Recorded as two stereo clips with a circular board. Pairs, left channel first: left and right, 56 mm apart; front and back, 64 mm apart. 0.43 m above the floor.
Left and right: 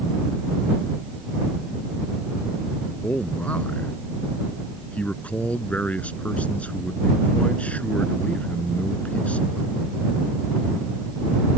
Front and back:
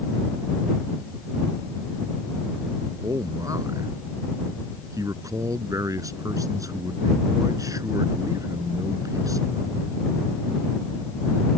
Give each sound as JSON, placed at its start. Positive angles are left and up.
{"t": 3.0, "sound": "a man speaking", "azimuth_deg": 155}